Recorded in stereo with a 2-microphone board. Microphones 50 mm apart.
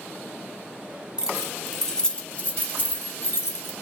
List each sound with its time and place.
1.2 s keys jangling: 15° right (ahead or behind), 0.8 m; by 3.7 s 55° left (ahead or behind), 1.3 m